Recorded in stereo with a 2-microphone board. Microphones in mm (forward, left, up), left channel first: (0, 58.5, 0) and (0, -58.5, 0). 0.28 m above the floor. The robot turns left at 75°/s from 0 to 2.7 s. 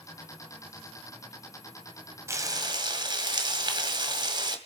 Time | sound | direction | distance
2.3 | frying | 35° right | 1.8 m